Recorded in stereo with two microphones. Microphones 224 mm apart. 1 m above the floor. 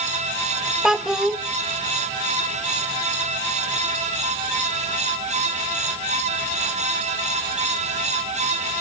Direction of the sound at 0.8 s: Centre (ahead or behind).